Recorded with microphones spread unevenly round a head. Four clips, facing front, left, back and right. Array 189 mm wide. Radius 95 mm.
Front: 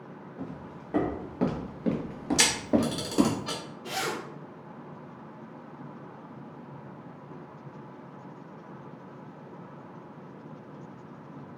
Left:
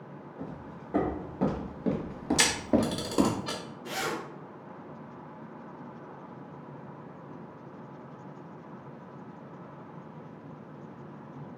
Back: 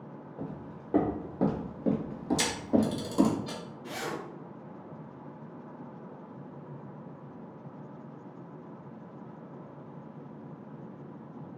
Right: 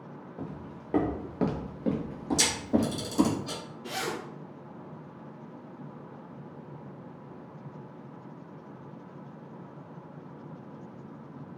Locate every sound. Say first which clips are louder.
0.4 s footsteps: right 1 dB, even; 110° right, 1.4 m; by 3.4 s 50° left, 1.3 m
2.4 s a camera shutter: left 1 dB, front 2 dB; 45° left, 1.1 m
3.8 s a zipper: left 1 dB, front 4 dB; 135° right, 0.9 m